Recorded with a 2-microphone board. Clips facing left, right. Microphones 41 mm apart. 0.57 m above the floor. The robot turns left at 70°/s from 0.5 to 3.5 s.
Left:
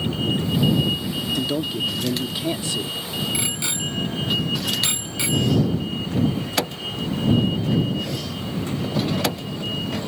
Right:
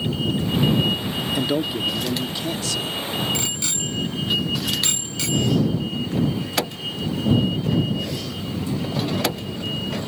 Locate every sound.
1.4 s a man speaking: 140° right; by 2.9 s 110° left
3.3 s a bicycle bell: 10° left (ahead or behind); by 5.5 s 20° left (ahead or behind)